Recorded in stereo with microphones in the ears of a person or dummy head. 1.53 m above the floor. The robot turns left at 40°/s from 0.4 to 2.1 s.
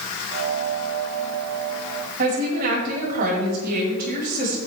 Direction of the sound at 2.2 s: 50° right (ahead or behind).